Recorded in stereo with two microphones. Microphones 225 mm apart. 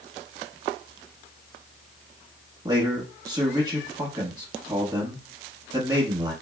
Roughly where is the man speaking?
Centre.